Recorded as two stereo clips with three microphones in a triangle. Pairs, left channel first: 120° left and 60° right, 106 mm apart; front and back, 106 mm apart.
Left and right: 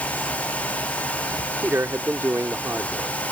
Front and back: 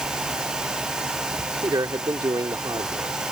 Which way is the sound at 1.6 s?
125° right.